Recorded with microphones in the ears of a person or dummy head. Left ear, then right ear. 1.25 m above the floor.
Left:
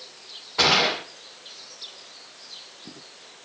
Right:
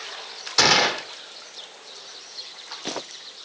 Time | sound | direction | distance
0.6 | a gunshot | 75° right (ahead or behind) | 2 m